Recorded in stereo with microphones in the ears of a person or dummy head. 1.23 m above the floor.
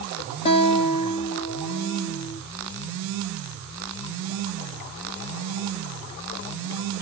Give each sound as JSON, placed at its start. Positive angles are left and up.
{"t": 0.5, "sound": "a guitar", "side_deg": 30, "distance_m": 0.8}